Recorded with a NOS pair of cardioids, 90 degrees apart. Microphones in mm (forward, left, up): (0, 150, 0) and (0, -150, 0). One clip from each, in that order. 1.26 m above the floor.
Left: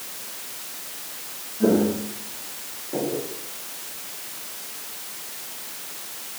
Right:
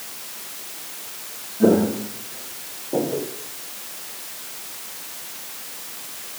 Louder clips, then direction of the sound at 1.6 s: Right 3 dB; 35° right.